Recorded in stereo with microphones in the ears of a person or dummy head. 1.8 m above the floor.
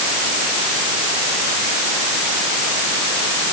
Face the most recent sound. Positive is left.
No sound to turn to.